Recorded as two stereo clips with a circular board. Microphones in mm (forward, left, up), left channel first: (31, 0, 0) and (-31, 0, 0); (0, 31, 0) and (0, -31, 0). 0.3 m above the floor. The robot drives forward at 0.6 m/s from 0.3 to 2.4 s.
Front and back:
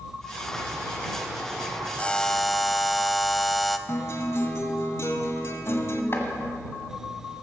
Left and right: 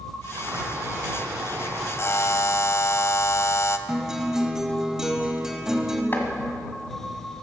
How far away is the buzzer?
About 0.7 m.